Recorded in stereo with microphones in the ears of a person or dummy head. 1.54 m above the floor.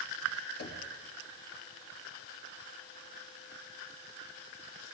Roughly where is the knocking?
Left.